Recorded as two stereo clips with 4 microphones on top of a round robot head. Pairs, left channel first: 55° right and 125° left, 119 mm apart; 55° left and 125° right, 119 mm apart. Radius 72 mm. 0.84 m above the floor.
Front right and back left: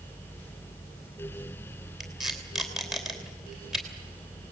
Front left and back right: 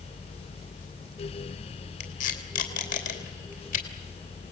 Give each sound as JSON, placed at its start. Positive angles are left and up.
{"t": 2.0, "sound": "tape being pulled", "azimuth_deg": 35, "distance_m": 3.0}